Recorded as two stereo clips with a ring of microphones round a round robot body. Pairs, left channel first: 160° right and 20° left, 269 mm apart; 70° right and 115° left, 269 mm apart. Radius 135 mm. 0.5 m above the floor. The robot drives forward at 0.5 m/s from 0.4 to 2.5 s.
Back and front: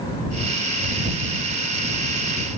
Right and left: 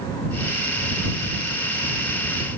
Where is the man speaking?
No man speaking in this recording.